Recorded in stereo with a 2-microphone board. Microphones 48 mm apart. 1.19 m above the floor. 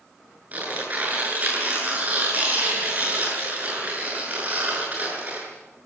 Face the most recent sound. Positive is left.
turn(degrees=-35)  # may be behind; listen again after turning